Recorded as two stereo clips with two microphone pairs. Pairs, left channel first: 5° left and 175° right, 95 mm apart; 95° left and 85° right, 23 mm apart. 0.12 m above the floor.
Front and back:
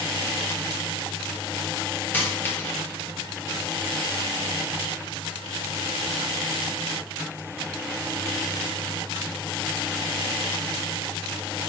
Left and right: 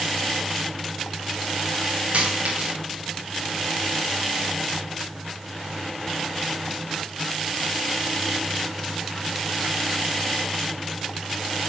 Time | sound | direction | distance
2.1 | a dropped coin | 65° right | 4 m